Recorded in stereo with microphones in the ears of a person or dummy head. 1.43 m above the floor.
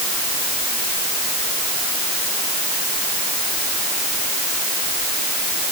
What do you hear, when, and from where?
Only background noise.